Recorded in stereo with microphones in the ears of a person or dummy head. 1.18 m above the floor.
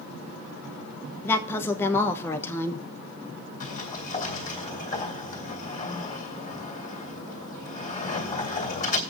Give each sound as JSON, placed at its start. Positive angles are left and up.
{"t": 1.2, "sound": "a woman speaking", "side_deg": 20, "distance_m": 1.1}
{"t": 3.6, "sound": "a sliding door", "side_deg": 40, "distance_m": 2.0}